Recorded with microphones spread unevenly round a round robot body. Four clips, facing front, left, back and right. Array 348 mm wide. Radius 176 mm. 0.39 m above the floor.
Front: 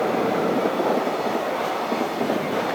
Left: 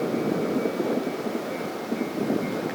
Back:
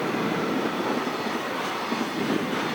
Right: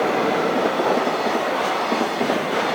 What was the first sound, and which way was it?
Only background noise.